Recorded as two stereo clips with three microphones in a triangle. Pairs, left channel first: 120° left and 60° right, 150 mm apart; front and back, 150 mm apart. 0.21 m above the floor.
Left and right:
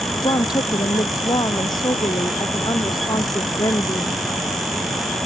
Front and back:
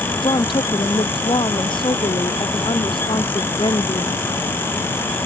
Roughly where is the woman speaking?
Ahead left.